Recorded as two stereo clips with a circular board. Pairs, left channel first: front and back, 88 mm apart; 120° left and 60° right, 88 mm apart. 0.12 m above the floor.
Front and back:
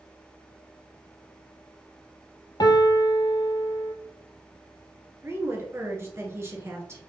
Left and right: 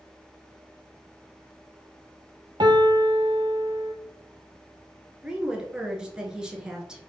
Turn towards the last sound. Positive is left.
turn(degrees=-135)